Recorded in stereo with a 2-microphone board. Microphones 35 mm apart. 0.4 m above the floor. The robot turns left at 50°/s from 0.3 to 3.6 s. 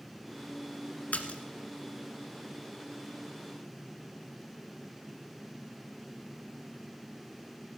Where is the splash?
50° left (ahead or behind), 1.3 m; by 1.4 s 35° left (ahead or behind), 1.3 m.